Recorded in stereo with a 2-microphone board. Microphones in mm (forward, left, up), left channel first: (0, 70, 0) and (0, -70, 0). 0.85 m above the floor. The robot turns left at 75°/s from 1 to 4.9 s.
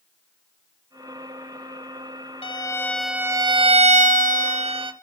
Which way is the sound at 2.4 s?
45° left.